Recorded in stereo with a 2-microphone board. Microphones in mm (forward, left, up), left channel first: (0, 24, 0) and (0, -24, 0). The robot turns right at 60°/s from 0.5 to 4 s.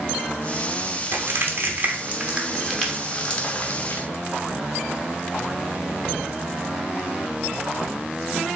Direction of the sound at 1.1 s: 50° right (ahead or behind).